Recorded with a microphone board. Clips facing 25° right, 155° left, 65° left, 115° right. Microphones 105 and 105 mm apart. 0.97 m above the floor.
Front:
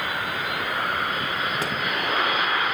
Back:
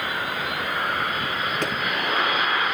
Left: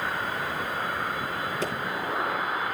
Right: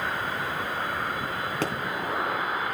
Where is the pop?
105° right, 2.5 m.